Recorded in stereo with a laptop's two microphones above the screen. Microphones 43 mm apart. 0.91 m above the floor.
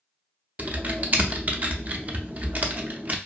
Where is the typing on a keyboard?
40° right (ahead or behind), 0.5 m.